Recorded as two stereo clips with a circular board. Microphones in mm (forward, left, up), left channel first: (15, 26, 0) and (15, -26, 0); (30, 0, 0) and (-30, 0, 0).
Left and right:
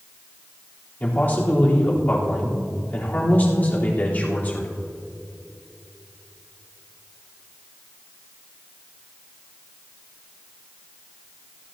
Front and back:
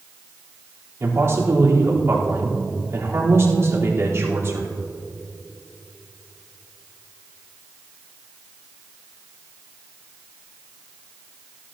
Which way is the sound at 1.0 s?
145° left.